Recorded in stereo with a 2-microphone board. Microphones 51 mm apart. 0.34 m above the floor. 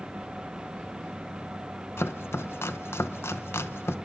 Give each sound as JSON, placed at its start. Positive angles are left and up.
{"t": 2.0, "sound": "chopping", "side_deg": 65, "distance_m": 0.7}